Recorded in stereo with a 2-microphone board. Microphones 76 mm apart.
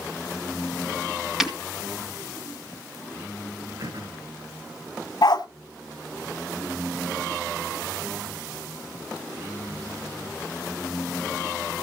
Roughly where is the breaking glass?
Centre.